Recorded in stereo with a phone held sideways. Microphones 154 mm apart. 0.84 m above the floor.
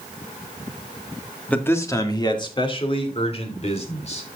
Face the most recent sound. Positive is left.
turn(degrees=45)  # may be behind; listen again after turning